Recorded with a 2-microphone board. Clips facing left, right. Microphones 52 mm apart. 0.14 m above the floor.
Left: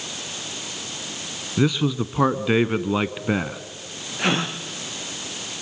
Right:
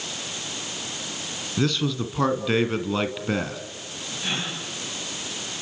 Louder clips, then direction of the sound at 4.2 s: Left 7 dB; 65° left (ahead or behind).